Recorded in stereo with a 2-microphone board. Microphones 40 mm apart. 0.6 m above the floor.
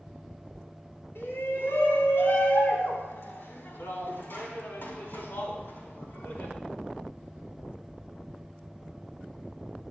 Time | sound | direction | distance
1.1 | a shout | 80° left | 5 m